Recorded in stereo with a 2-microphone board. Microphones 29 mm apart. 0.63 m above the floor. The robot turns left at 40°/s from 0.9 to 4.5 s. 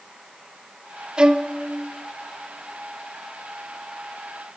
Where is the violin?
30° right (ahead or behind), 0.5 m; by 1.5 s 20° right (ahead or behind), 0.5 m.